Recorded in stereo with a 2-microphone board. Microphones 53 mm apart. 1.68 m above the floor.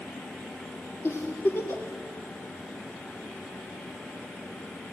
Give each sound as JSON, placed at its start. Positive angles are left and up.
{"t": 1.0, "sound": "a giggle", "side_deg": 55, "distance_m": 3.5}